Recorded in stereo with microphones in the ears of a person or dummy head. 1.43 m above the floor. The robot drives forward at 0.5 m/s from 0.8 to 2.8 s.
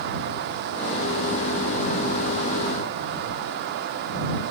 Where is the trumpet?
No trumpet in this recording.